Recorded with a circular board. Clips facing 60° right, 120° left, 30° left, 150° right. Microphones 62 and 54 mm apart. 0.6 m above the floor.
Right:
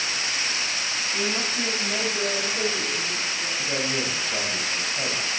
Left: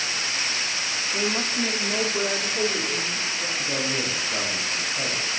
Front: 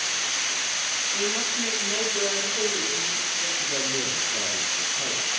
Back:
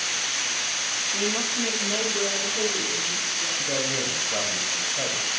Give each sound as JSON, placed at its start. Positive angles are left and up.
{"t": 1.1, "sound": "a woman speaking", "azimuth_deg": 150, "distance_m": 1.2}
{"t": 3.6, "sound": "a man speaking", "azimuth_deg": -160, "distance_m": 2.0}